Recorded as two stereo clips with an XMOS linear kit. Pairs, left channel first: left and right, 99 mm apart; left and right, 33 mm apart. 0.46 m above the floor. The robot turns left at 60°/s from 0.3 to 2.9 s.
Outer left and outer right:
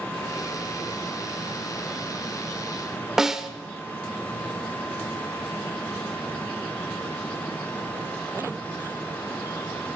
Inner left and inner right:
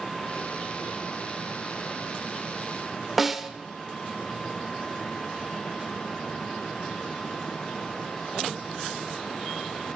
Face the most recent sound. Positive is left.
turn(degrees=-5)  # may be behind; listen again after turning